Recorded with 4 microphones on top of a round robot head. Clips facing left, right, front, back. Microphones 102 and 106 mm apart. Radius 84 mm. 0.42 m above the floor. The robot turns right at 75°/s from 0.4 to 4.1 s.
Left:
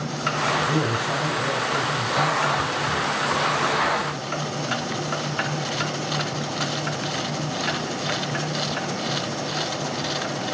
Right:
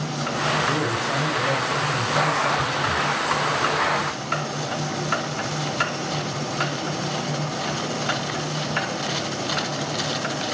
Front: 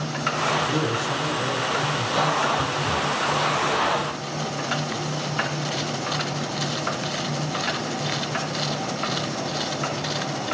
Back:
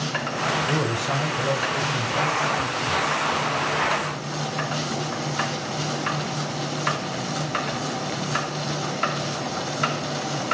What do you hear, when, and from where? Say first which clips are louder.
0.7 s a man speaking: even, even; 145° left, 2.5 m; by 3.0 s 40° right, 2.5 m